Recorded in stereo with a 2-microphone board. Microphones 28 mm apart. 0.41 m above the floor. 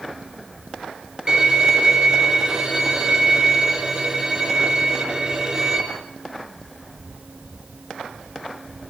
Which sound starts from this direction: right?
A violin, at 1.3 s.